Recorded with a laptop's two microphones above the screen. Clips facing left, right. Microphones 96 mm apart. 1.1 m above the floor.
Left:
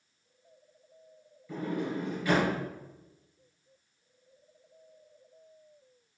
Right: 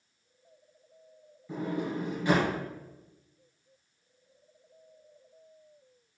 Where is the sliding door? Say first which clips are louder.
Even; 25° right (ahead or behind), 3 m.